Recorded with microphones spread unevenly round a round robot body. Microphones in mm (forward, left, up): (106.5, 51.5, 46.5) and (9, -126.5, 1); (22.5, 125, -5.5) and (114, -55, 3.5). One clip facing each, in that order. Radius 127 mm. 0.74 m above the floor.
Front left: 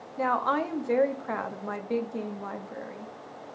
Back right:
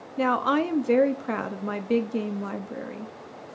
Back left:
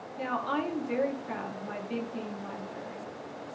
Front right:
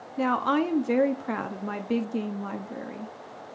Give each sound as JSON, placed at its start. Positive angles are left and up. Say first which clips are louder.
{"t": 0.2, "sound": "a woman speaking", "louder": "back right 5 dB, front right 8 dB", "azimuth_deg": -90, "distance_m": 0.9}